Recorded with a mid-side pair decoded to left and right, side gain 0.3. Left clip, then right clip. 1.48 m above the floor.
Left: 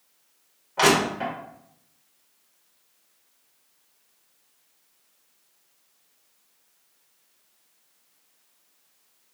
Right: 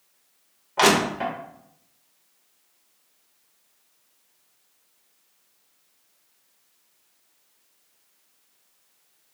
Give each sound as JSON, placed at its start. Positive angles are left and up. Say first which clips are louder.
{"t": 0.8, "sound": "crushing", "louder": "right 1 dB", "azimuth_deg": -40, "distance_m": 1.9}